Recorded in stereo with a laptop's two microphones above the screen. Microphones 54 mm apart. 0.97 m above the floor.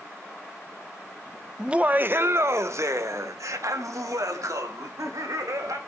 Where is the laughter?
10° right (ahead or behind), 0.7 m; by 5.8 s 80° right, 3.5 m.